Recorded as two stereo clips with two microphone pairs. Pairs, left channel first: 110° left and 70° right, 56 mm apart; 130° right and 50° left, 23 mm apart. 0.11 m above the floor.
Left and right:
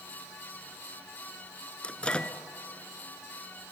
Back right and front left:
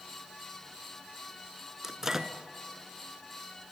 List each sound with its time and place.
1.8 s a microwave: 70° left, 0.9 m